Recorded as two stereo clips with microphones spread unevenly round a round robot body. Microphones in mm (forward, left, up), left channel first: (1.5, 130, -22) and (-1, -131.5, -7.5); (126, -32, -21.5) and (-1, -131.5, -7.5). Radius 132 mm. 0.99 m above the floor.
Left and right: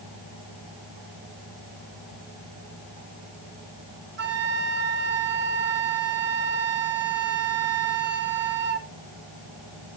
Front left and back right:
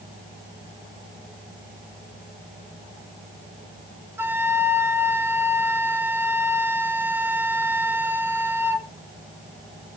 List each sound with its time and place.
4.2 s a flute: 75° right, 0.7 m